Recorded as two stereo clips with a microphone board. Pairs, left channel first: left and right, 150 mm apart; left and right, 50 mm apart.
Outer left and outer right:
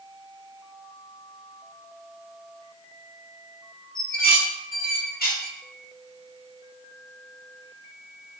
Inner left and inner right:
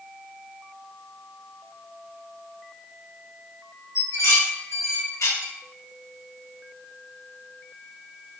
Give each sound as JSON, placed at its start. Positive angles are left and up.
{"t": 4.0, "sound": "dishes clattering", "side_deg": 80, "distance_m": 1.6}